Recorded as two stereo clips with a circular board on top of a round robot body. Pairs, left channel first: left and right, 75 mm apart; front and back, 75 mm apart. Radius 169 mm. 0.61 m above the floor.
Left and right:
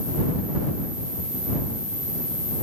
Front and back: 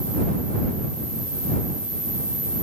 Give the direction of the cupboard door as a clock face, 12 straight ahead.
No cupboard door in this recording.